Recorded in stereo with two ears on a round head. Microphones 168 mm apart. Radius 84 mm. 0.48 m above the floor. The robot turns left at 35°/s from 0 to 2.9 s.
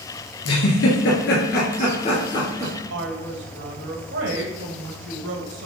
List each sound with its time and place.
0.5 s a giggle: 90° left, 3 m; by 2.7 s 10° left (ahead or behind), 3 m
2.9 s a woman speaking: 70° right (ahead or behind), 2 m